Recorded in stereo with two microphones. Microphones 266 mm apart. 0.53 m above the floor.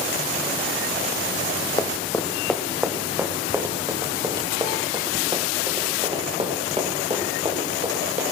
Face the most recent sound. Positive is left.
turn(degrees=-25)  # may be behind; listen again after turning